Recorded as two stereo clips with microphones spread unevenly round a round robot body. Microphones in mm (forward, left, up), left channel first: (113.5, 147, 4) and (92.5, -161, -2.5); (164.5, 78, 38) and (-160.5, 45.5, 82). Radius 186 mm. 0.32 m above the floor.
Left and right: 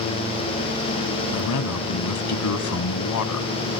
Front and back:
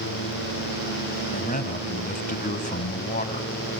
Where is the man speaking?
65° left, 2.5 m.